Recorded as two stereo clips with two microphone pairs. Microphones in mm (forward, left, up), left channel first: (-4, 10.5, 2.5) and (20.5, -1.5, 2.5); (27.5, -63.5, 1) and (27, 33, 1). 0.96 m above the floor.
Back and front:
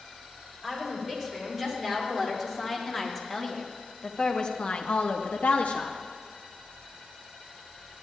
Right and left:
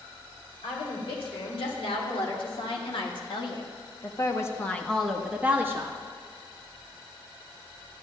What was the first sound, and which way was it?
A woman speaking, 100° right.